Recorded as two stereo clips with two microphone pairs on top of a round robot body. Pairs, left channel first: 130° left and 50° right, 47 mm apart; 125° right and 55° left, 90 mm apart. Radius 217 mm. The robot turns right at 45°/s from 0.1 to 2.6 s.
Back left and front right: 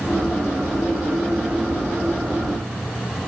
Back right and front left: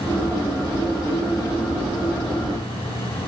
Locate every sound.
Only background noise.